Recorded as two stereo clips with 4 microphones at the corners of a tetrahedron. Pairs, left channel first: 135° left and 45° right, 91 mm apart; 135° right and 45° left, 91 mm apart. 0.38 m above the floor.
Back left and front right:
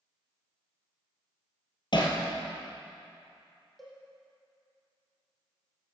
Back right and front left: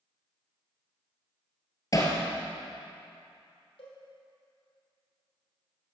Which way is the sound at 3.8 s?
135° right.